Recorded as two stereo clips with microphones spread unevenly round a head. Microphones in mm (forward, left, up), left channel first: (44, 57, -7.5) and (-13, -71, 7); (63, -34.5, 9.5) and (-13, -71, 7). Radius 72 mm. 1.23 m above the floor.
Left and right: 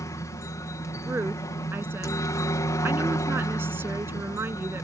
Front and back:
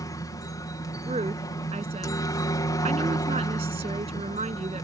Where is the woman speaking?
170° left.